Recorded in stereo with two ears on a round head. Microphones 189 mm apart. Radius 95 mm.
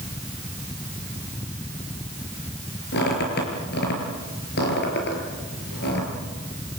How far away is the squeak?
About 6.5 m.